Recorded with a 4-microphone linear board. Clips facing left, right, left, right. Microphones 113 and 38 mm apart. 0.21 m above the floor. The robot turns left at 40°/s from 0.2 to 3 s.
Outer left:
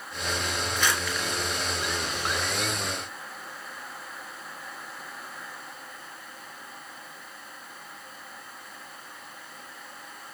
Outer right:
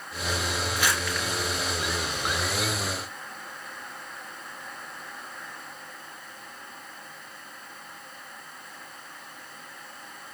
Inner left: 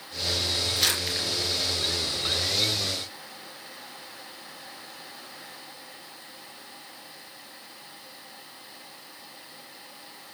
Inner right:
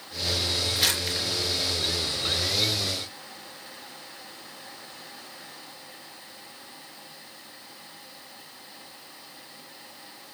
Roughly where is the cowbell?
No cowbell in this recording.